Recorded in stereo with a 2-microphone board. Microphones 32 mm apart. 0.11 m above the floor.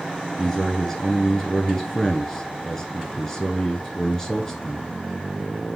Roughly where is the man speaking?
Centre.